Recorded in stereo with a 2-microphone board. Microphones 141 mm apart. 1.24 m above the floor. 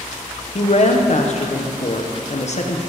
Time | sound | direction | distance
0.6 | a woman speaking | 55° left (ahead or behind) | 0.8 m